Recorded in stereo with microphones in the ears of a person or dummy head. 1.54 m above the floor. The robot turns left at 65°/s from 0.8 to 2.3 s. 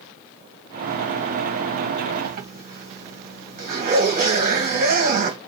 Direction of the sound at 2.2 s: 50° right (ahead or behind).